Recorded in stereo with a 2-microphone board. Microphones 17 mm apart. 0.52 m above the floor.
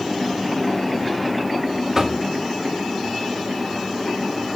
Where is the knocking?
30° right (ahead or behind), 1.3 m.